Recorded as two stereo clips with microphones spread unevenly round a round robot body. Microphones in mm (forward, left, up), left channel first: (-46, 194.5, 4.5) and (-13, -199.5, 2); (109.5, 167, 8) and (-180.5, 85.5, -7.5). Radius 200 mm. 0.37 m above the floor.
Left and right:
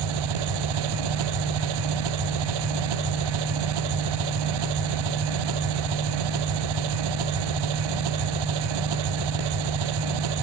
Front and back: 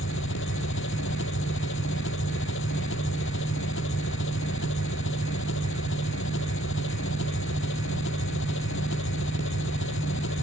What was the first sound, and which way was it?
An engine running, 50° right.